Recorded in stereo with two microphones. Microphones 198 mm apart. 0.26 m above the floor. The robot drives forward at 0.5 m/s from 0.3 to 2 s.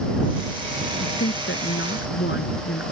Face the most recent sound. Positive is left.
turn(degrees=70)  # may be behind; listen again after turning